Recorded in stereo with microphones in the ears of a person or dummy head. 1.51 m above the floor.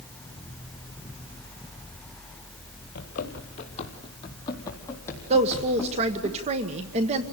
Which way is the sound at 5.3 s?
40° right (ahead or behind).